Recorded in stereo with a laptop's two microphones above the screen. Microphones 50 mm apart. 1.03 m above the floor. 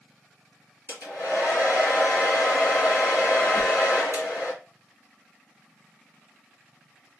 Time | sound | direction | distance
0.9 | a hair dryer | 65° left (ahead or behind) | 2.0 m
3.5 | a whoosh | 60° left (ahead or behind) | 1.1 m